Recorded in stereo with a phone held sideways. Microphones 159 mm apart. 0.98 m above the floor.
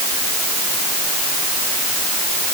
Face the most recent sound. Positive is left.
No sound to turn to.